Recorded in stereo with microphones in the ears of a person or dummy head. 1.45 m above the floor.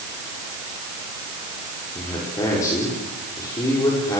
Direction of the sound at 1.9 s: 20° left (ahead or behind).